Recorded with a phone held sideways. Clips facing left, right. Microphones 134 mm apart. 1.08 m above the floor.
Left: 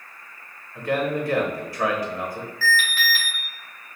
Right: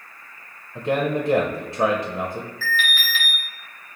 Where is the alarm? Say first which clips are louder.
Left 4 dB; 45° left (ahead or behind), 1.7 m.